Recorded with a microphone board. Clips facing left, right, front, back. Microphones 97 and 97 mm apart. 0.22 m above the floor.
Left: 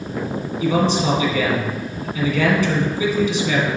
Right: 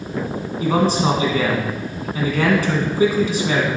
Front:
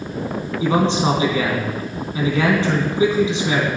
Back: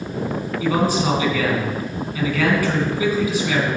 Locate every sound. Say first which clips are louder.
0.6 s a man speaking: right 1 dB, front 2 dB; 55° right, 2 m